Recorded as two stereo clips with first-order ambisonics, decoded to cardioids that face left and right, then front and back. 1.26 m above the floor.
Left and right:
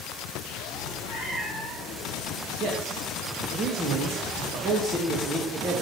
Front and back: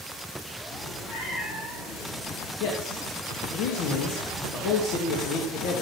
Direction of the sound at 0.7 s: 40° left.